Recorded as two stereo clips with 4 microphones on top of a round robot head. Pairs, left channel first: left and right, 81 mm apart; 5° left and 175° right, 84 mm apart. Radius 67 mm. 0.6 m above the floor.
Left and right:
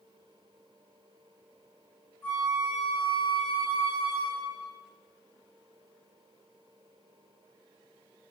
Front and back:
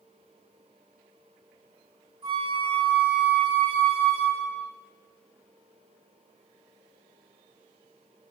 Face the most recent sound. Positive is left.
turn(degrees=165)